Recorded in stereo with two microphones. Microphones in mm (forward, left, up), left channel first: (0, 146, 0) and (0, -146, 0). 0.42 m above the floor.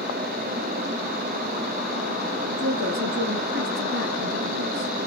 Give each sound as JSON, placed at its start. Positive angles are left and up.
{"t": 2.5, "sound": "a woman speaking", "side_deg": -65, "distance_m": 4.0}